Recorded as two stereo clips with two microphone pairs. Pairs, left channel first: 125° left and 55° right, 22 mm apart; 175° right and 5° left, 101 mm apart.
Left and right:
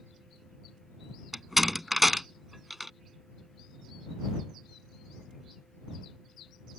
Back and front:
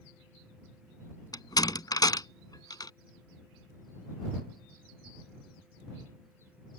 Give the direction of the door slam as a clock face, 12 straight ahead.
5 o'clock.